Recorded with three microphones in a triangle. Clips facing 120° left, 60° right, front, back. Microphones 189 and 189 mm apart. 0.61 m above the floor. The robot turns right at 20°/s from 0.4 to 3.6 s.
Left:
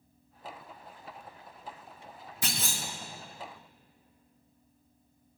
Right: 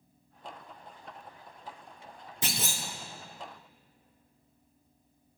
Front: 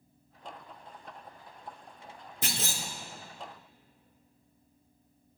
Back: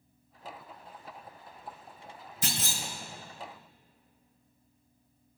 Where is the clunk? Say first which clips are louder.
Right 1 dB, even; straight ahead, 2 m; by 2.8 s 10° left, 2 m.